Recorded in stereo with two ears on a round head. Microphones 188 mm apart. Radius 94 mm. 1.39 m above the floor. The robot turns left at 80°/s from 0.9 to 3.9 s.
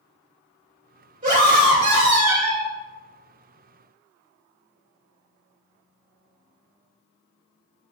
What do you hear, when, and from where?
1.2 s a scream: 40° right, 3 m; by 2.7 s 160° right, 3 m